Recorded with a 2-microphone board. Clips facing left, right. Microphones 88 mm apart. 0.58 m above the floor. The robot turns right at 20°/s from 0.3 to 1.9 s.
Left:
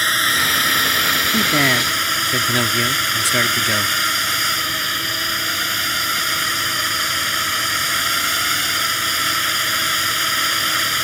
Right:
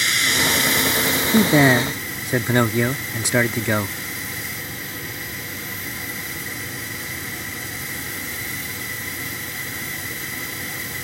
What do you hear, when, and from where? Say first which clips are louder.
0.0 s a drone: left 3 dB; 45° left; by 11.0 s 80° left
1.3 s a man speaking: right 5 dB; 25° right (ahead or behind); by 4.0 s 20° right (ahead or behind)